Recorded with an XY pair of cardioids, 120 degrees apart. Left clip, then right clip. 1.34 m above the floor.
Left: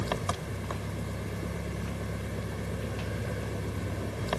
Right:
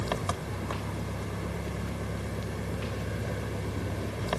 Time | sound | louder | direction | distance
0.0 | an engine running | even | straight ahead | ?